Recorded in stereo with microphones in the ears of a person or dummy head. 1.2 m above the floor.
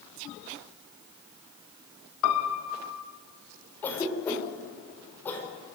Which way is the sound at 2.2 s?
70° left (ahead or behind).